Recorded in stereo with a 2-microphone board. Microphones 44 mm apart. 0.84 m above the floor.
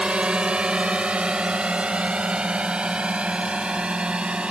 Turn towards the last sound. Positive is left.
turn(degrees=-25)  # may be behind; listen again after turning